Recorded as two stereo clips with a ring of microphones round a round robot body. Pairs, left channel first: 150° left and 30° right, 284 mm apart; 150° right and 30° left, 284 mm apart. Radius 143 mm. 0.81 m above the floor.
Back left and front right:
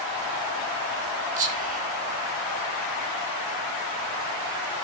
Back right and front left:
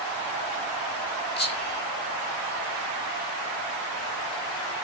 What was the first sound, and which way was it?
Whispering, 95° right.